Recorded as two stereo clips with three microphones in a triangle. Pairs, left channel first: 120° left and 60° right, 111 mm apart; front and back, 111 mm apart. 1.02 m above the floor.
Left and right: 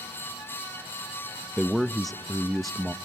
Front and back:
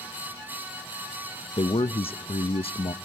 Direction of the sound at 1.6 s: 30° left.